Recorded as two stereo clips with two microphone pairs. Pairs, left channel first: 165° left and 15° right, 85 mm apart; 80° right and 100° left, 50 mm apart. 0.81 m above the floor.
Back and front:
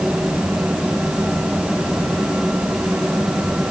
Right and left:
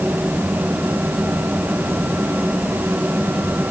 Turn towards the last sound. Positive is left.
No sound to turn to.